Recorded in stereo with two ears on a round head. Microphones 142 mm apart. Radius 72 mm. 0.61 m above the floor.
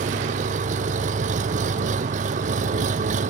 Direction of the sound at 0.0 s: 50° right (ahead or behind).